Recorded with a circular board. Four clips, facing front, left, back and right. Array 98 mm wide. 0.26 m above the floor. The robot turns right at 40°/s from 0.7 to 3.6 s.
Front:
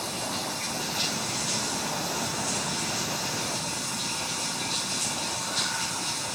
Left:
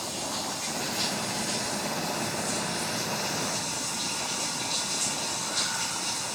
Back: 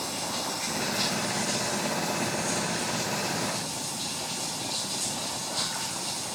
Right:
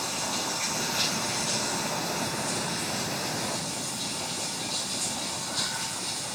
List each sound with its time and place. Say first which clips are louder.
0.0 s running water: right 1 dB, even; 75° right, 2 m; by 6.4 s 40° left, 2 m